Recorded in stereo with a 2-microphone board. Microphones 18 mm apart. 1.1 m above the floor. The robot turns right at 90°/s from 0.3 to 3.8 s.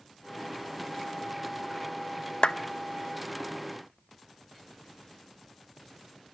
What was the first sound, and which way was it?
A clap, 70° left (ahead or behind).